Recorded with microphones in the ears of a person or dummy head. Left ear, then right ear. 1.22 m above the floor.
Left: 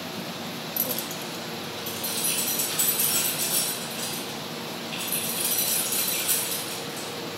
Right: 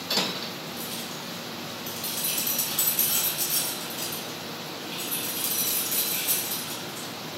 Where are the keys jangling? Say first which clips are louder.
Left 3 dB; 55° left (ahead or behind), 0.6 m; by 7.1 s 30° right (ahead or behind), 3.5 m.